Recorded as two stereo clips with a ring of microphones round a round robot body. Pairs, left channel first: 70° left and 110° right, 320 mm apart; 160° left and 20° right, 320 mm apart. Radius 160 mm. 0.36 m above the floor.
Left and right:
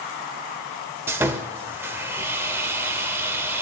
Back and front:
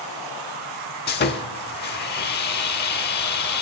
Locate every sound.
1.1 s sawing: 170° left, 0.8 m